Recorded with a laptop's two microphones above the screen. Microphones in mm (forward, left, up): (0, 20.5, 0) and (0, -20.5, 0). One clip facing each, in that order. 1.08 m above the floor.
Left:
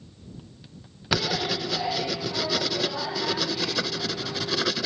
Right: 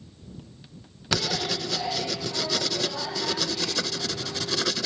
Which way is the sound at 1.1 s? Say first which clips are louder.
Left 1 dB; 10° left (ahead or behind).